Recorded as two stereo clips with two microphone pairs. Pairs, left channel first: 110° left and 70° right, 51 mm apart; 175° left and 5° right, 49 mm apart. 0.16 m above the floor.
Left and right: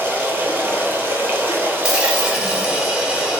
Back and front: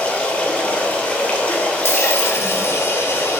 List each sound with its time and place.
0.0 s running water: 120° right, 0.8 m
1.8 s a dropped coin: 145° right, 1.0 m